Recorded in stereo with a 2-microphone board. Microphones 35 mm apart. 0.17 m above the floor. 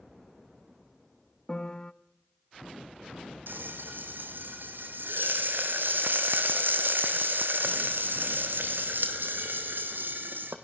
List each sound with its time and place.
1.5 s a piano: 20° left (ahead or behind), 0.6 m
3.5 s frying: 75° right (ahead or behind), 2 m